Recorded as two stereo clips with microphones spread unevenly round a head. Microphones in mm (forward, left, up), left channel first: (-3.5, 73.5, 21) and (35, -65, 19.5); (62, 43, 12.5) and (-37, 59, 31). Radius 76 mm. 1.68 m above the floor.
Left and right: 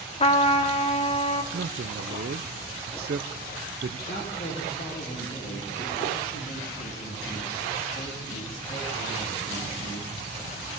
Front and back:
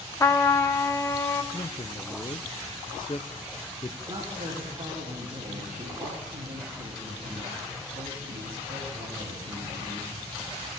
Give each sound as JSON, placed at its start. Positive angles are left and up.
{"t": 0.2, "sound": "a trumpet", "azimuth_deg": 55, "distance_m": 1.0}
{"t": 1.5, "sound": "a man speaking", "azimuth_deg": -75, "distance_m": 0.7}
{"t": 4.1, "sound": "a woman speaking", "azimuth_deg": 140, "distance_m": 3.5}